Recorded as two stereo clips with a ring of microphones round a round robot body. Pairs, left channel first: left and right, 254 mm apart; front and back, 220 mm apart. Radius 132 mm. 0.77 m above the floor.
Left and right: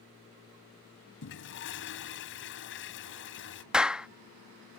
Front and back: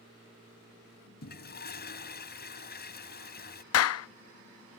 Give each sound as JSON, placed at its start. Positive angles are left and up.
{"t": 1.2, "sound": "a toilet flushing", "azimuth_deg": 45}
{"t": 3.7, "sound": "a clap", "azimuth_deg": -5}